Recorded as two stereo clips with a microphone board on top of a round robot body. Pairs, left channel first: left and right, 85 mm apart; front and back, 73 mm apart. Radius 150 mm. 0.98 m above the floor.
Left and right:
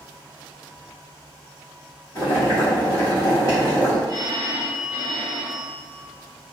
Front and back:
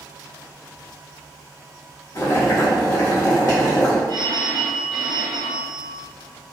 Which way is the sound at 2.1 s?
40° left.